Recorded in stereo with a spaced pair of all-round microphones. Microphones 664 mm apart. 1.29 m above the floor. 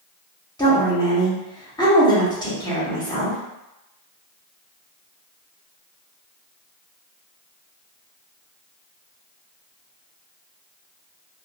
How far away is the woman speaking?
About 1.1 m.